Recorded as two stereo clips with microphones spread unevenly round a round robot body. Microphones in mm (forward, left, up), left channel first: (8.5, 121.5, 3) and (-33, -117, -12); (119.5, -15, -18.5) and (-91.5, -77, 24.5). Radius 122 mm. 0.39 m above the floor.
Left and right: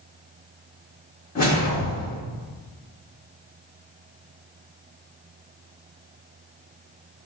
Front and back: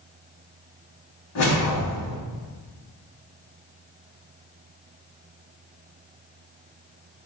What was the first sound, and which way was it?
A whoosh, 20° left.